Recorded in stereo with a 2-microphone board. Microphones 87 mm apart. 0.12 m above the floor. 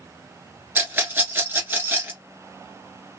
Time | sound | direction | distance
0.8 | a rattle | 25° right (ahead or behind) | 2 m